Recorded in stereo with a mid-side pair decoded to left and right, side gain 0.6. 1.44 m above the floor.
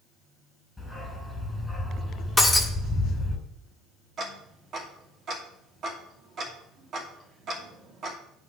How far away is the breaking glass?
About 2 m.